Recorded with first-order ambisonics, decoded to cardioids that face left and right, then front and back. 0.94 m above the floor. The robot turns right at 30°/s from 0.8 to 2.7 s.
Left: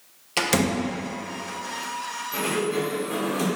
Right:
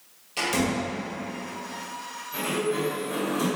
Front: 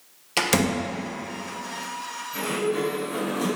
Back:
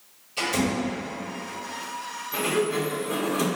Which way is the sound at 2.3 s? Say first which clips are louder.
Left 1 dB, back 1 dB; 150° left.